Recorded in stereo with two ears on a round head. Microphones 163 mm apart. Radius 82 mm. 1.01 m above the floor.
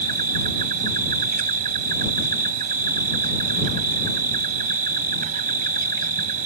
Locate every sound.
0.0 s an insect: 45° right (ahead or behind)